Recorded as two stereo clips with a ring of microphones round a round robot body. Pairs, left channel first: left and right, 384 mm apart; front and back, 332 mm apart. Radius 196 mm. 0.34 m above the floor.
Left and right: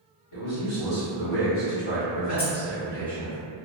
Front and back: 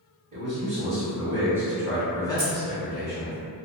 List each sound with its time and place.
0.3 s a man speaking: 120° left, 1.5 m; by 3.4 s 5° right, 1.1 m
2.4 s keys jangling: 130° left, 1.4 m